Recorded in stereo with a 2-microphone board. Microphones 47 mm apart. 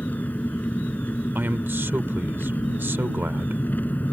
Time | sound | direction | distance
0.0 | an engine running | 35° left (ahead or behind) | ?
1.4 | a man speaking | 55° right (ahead or behind) | ?